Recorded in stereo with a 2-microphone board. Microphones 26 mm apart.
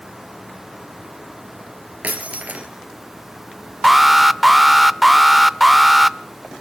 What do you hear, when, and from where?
2.0 s breaking glass: 85° right, 2.5 m
3.8 s an alarm: 5° right (ahead or behind), 0.5 m